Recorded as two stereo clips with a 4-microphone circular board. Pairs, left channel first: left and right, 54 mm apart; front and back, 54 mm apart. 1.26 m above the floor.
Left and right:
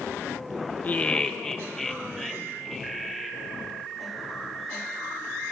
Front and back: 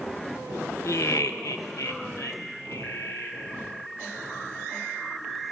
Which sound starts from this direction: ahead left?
Laughter, at 0.8 s.